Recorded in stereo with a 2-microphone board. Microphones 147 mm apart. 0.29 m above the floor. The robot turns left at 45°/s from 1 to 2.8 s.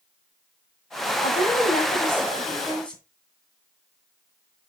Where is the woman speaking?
80° left, 2.5 m; by 3.0 s 10° left, 2.5 m.